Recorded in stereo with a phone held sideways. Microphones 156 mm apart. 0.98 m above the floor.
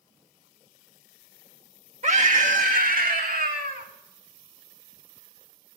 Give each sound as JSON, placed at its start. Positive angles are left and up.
{"t": 2.0, "sound": "a scream", "side_deg": -50, "distance_m": 1.8}